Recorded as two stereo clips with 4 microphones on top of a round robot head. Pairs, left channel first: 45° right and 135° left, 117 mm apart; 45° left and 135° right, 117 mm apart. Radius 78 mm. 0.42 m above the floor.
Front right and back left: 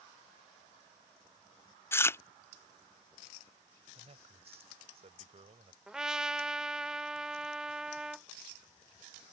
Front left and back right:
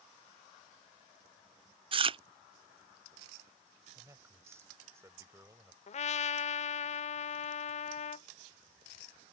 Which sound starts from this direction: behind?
A man speaking, at 4.0 s.